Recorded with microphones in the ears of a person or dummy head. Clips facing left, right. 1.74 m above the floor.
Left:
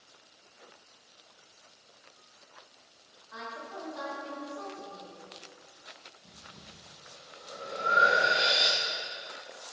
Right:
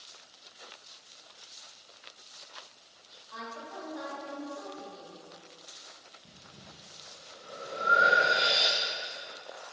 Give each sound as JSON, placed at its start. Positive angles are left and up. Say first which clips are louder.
{"t": 3.3, "sound": "a woman speaking", "louder": "even", "side_deg": 5, "distance_m": 4.0}
{"t": 6.2, "sound": "breathing", "louder": "right 1 dB", "side_deg": -5, "distance_m": 1.4}